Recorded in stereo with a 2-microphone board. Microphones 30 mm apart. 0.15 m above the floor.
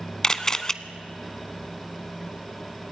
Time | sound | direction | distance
0.2 | a camera shutter | 20° left (ahead or behind) | 0.6 m